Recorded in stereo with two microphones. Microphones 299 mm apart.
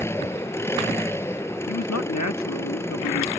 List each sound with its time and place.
0.0 s an engine running: 10° left (ahead or behind)
1.7 s a man speaking: 65° left (ahead or behind)